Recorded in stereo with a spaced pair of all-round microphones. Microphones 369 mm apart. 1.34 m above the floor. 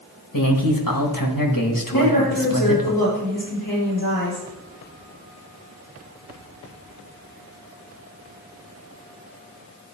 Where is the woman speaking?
70° left (ahead or behind), 3.5 m.